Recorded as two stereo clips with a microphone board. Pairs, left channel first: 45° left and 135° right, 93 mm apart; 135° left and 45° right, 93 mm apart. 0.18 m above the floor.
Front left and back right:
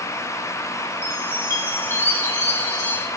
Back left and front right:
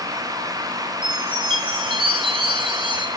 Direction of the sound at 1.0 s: 20° right.